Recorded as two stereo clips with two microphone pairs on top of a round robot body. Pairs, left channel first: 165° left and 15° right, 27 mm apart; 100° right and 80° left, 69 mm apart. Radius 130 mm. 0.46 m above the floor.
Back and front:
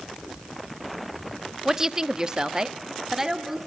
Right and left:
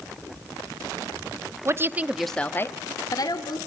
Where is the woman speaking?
55° left, 1.2 m; by 3.6 s 90° right, 1.9 m.